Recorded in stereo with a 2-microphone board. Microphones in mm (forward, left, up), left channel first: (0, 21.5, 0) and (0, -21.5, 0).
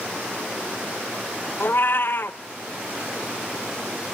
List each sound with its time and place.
1.6 s a cat meowing: 55° left (ahead or behind), 0.7 m